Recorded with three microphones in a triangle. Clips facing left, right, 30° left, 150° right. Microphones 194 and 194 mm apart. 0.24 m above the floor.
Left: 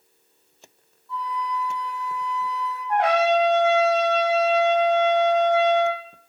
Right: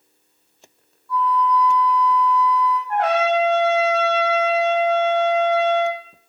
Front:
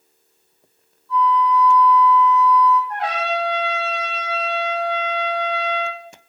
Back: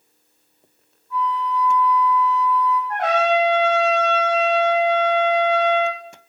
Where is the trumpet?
165° left, 5 m.